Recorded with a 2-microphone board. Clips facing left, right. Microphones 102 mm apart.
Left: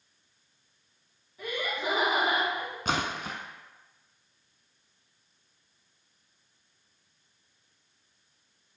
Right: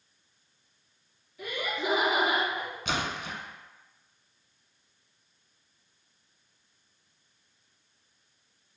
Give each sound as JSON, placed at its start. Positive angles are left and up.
{"t": 1.4, "sound": "laughter", "side_deg": 35, "distance_m": 1.9}
{"t": 2.9, "sound": "a splash", "side_deg": 45, "distance_m": 0.5}